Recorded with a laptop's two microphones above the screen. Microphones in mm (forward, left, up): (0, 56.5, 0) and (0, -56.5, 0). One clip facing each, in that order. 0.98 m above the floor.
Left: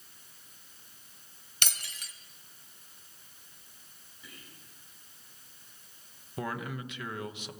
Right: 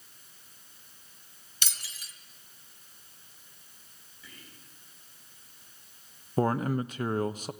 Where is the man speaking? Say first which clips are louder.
Right 10 dB; 45° right (ahead or behind), 0.9 m.